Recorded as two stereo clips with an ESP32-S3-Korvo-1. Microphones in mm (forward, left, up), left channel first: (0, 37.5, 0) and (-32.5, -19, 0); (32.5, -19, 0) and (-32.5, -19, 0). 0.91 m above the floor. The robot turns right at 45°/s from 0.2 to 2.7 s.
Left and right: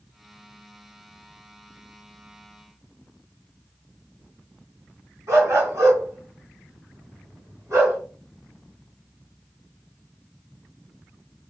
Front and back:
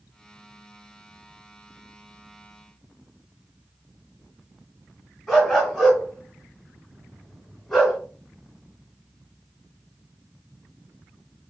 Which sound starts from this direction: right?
A dog barking, at 5.3 s.